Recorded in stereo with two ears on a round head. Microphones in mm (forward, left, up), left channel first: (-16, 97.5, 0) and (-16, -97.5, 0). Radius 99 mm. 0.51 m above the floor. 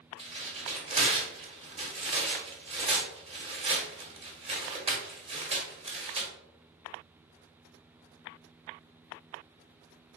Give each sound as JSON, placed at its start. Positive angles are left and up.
{"t": 0.2, "sound": "tearing paper", "side_deg": -30, "distance_m": 1.2}